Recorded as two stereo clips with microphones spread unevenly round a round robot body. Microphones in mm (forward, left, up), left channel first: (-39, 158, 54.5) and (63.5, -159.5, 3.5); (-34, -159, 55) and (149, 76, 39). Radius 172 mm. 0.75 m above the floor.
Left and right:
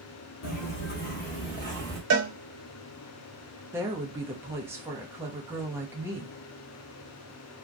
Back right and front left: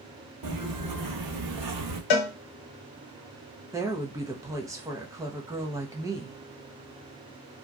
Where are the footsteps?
90° left, 1.1 m; by 2.0 s 30° left, 1.2 m.